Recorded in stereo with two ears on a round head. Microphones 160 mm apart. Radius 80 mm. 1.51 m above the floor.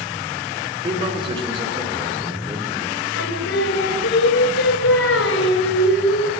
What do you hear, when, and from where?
0.8 s a man speaking: 30° right (ahead or behind), 5 m
3.1 s singing: 80° left, 5 m